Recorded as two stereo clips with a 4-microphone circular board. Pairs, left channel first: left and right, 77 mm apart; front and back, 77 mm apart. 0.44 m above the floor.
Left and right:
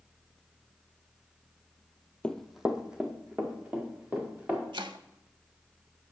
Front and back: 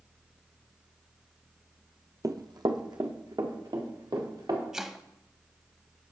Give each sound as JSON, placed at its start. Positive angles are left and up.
{"t": 2.2, "sound": "running footsteps", "azimuth_deg": 160, "distance_m": 0.6}
{"t": 4.7, "sound": "chopping", "azimuth_deg": -95, "distance_m": 0.6}